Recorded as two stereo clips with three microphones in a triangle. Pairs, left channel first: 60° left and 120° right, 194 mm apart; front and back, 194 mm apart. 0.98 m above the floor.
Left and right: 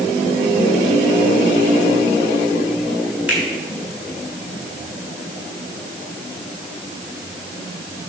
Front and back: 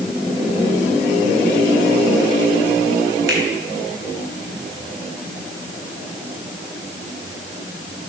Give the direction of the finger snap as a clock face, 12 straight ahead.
7 o'clock.